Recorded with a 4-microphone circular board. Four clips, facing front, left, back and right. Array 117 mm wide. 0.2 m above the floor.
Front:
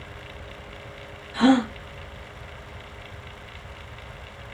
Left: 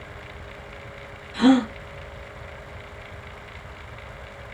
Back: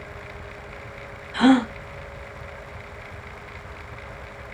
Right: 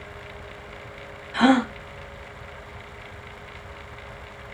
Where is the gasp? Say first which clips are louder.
Left 1 dB, back 2 dB; 105° right, 1.7 m.